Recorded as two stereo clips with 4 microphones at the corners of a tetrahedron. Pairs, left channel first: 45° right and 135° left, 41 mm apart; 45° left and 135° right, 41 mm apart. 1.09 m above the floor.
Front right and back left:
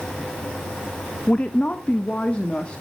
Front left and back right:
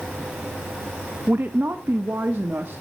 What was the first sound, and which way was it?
A woman speaking, 100° right.